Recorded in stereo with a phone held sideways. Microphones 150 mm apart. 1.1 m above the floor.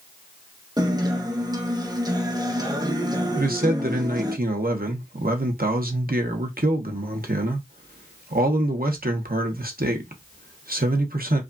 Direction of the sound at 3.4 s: 75° right (ahead or behind).